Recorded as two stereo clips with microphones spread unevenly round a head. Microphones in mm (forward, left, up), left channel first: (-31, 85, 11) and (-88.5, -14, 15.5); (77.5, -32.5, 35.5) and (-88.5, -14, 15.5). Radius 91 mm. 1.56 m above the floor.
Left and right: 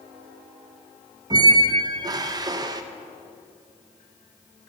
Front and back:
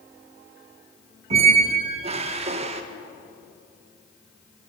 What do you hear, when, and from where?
1.3 s a squeak: 145° right, 0.8 m